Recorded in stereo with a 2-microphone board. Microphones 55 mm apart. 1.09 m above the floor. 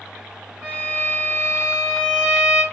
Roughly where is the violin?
Centre.